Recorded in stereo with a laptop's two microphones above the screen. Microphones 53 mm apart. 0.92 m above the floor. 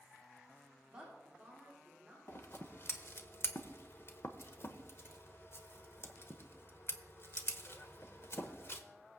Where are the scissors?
50° left (ahead or behind), 0.9 m.